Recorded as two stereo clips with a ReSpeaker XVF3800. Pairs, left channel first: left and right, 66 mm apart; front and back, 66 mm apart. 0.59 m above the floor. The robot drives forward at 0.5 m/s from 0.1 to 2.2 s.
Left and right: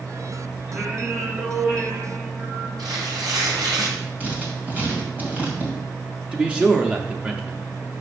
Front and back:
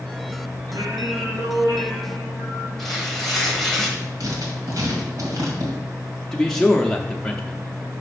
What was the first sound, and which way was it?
Singing, 160° right.